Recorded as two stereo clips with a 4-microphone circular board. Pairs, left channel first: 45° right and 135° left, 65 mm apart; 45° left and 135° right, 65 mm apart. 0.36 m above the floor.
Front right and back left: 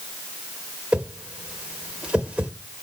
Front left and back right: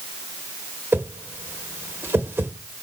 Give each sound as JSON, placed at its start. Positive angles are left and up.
{"t": 0.9, "sound": "a whoosh", "azimuth_deg": -160, "distance_m": 0.8}